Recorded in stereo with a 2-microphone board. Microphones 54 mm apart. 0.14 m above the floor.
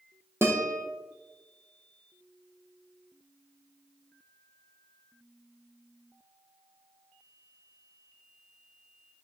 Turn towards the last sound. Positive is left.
turn(degrees=-50)  # may be behind; listen again after turning